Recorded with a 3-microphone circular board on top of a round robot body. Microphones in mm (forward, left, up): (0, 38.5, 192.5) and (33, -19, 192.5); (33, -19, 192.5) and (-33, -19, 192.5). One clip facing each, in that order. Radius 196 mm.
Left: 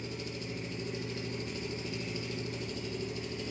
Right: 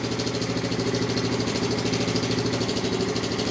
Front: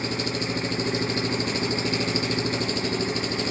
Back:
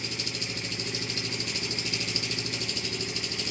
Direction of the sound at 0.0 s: 50° right.